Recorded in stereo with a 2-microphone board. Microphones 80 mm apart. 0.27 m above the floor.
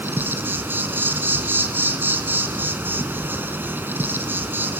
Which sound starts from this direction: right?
An insect, at 0.0 s.